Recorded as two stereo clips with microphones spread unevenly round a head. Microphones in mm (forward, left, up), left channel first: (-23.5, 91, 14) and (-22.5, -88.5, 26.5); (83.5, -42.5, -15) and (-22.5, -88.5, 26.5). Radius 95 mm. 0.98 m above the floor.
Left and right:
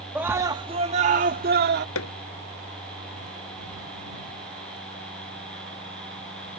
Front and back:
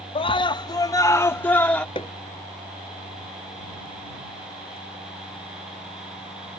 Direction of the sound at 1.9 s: 90° left.